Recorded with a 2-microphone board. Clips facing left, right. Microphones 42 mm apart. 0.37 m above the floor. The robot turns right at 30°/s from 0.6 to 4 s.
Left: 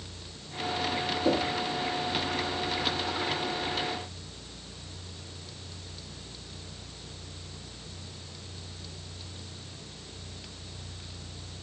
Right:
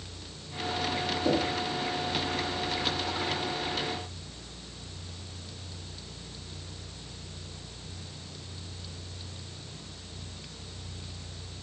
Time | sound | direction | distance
1.2 | knocking | 5° left (ahead or behind) | 7 m